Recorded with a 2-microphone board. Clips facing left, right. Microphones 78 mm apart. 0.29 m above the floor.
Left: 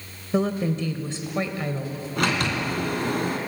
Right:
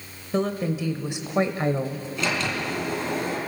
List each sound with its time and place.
0.3 s a woman speaking: 5° left (ahead or behind), 1.0 m; by 2.1 s 40° right (ahead or behind), 1.1 m
2.2 s a sliding door: 60° left (ahead or behind), 3 m